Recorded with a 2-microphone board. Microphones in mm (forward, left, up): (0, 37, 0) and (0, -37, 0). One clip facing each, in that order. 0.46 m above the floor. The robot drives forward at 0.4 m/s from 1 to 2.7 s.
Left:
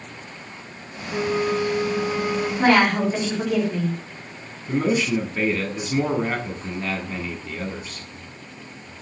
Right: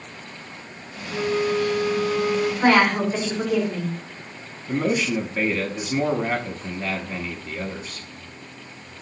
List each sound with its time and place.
1.1 s a flute: 20° right (ahead or behind), 2.5 m
2.6 s a woman speaking: 10° right (ahead or behind), 3.5 m
4.7 s a man speaking: 5° right (ahead or behind), 0.7 m